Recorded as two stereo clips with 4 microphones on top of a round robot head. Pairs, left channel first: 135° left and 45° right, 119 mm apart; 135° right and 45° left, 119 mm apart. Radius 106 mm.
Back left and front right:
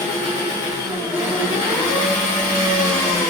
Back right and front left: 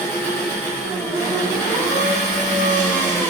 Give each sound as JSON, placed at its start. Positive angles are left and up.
{"t": 0.0, "sound": "an engine running", "azimuth_deg": 150, "distance_m": 0.8}